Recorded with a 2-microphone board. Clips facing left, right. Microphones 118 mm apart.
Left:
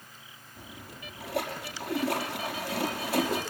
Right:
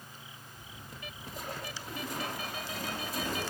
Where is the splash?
75° left (ahead or behind), 5 m.